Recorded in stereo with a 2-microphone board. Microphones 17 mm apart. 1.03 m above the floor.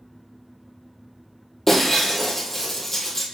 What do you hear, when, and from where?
1.7 s breaking glass: 20° left (ahead or behind), 1.8 m